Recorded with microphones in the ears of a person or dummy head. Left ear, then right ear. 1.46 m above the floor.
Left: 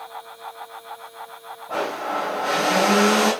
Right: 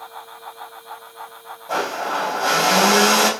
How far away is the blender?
About 5 m.